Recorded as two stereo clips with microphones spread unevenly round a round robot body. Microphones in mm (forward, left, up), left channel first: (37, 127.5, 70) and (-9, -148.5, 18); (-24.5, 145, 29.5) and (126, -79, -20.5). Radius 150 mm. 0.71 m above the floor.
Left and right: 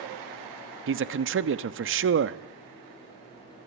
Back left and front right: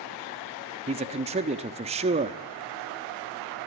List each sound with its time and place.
0.9 s a man speaking: 110° right, 0.9 m